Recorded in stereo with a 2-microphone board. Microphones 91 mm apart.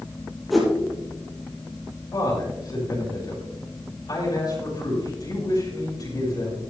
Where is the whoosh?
Centre (ahead or behind), 4.5 m.